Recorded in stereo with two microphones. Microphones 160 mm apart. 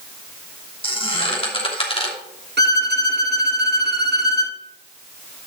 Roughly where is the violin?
Right.